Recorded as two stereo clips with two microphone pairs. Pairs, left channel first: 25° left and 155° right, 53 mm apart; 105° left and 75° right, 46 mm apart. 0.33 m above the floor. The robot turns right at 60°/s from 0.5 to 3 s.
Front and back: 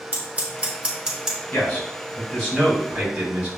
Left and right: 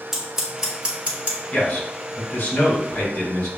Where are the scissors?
135° right, 1.4 m; by 1.4 s 85° right, 1.4 m.